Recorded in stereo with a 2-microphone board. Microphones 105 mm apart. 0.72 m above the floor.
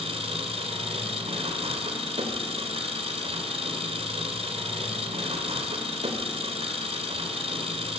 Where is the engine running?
75° right (ahead or behind), 2.5 m.